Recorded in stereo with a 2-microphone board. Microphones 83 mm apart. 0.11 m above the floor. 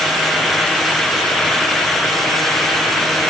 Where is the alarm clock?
No alarm clock in this recording.